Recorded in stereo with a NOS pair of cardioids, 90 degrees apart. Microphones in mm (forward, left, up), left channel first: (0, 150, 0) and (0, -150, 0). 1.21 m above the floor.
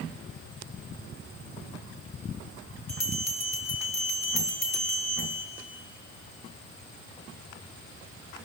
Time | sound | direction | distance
2.9 | a bell | 60° left | 4.5 m